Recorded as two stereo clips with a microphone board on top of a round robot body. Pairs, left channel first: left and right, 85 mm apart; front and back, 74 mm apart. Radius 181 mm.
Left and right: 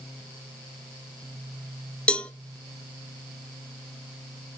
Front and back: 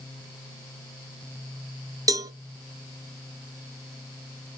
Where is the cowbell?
165° left, 0.8 m.